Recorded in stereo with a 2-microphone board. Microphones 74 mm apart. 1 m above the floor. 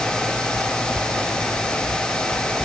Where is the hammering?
No hammering in this recording.